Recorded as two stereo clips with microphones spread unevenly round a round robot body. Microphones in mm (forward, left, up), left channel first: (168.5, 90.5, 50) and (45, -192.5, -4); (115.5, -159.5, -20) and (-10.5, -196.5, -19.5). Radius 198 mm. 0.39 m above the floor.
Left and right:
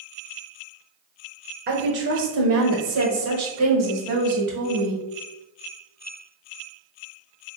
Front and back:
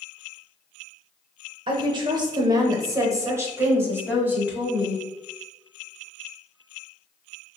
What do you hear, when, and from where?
1.7 s a woman speaking: 135° right, 1.0 m; by 5.0 s 85° right, 2 m